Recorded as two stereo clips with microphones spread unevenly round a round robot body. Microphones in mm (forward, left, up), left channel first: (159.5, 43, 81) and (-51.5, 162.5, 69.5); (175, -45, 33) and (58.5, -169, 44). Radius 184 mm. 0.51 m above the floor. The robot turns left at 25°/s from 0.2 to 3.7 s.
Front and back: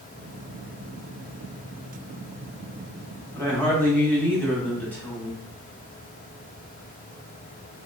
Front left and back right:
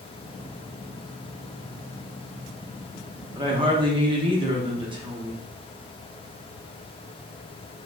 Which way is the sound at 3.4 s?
100° right.